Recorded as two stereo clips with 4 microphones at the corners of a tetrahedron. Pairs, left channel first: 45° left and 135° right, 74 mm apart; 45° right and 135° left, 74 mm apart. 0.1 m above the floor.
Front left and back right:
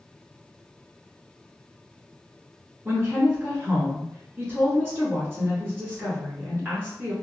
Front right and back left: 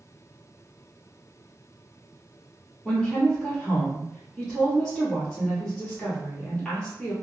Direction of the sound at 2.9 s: 115° right.